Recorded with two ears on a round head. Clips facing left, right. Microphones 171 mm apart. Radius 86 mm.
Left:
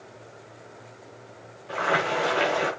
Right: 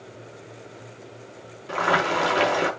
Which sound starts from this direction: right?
Boiling, at 1.7 s.